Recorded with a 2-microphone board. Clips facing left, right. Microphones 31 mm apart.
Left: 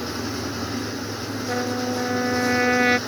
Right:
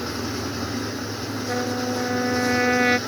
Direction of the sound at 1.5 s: 5° left (ahead or behind).